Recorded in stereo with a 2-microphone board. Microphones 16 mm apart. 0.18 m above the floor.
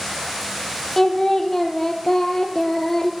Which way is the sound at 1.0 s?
20° left (ahead or behind).